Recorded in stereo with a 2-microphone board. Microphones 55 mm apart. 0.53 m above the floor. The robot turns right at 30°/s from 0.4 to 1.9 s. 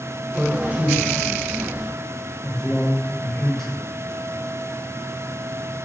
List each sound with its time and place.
0.4 s a man speaking: 35° right (ahead or behind), 1.7 m; by 3.8 s 10° left (ahead or behind), 1.7 m